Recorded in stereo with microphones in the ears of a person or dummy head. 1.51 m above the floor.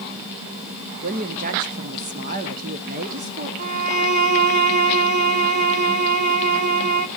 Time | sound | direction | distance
1.0 | a woman speaking | 45° right (ahead or behind) | 1.0 m
3.6 | a violin | 45° right (ahead or behind) | 0.8 m